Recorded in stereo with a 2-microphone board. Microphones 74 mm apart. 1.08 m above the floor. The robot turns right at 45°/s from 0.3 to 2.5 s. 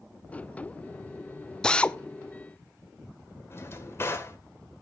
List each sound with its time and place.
1.6 s a drill: 10° left (ahead or behind), 0.7 m; by 2.0 s 20° left (ahead or behind), 0.7 m
3.5 s a drawer: 35° left (ahead or behind), 2 m